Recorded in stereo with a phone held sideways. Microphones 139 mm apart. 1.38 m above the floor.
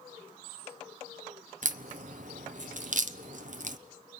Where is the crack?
60° right (ahead or behind), 0.8 m.